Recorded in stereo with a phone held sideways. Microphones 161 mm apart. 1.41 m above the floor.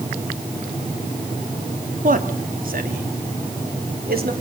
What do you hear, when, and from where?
2.0 s a man speaking: 60° right (ahead or behind), 3.5 m; by 4.3 s 80° right, 4.5 m